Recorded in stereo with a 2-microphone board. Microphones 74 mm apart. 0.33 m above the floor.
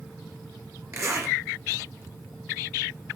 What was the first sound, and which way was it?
A zipper, 35° right (ahead or behind).